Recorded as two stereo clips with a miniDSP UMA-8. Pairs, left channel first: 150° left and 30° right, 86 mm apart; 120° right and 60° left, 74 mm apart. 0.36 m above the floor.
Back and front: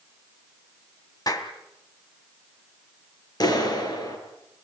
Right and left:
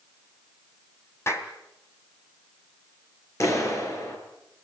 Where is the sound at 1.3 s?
175° right, 2.5 m.